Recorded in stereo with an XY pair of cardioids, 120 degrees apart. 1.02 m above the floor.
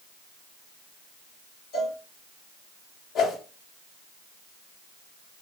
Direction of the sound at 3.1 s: 70° left.